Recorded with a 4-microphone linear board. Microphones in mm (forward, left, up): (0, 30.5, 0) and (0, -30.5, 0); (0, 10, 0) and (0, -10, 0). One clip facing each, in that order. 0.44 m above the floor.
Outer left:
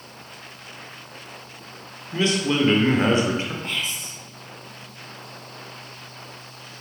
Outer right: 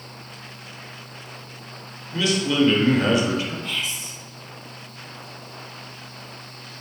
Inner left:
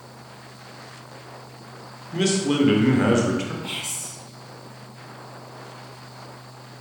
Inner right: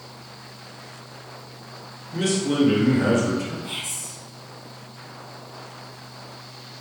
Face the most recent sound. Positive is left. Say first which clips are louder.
# even, inner left 1 dB
turn(degrees=40)  # may be behind; listen again after turning